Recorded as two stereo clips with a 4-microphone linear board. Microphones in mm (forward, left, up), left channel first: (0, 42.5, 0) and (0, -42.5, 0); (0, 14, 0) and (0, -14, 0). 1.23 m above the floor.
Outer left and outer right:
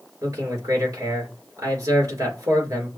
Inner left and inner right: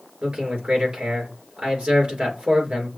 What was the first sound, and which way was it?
A man speaking, 45° right (ahead or behind).